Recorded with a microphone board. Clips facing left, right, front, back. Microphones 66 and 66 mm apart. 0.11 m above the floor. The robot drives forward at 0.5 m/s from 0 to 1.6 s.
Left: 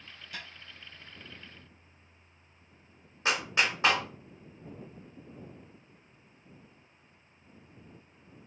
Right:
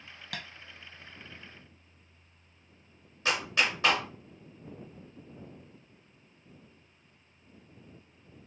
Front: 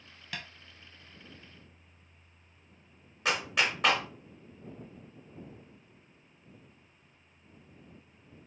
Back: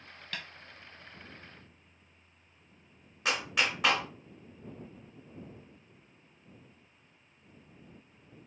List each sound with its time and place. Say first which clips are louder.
0.3 s tapping: right 2 dB, even; 85° right, 0.9 m; by 0.5 s 90° right, 0.9 m
3.2 s a clap: even, front 1 dB; 90° left, 0.9 m